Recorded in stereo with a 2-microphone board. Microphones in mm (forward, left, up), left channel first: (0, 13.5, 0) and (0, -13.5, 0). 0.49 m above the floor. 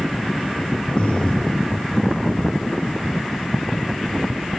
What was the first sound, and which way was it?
Breathing, 60° left (ahead or behind).